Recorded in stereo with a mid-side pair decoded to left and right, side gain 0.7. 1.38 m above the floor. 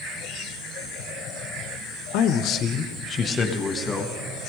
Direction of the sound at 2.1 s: 65° left.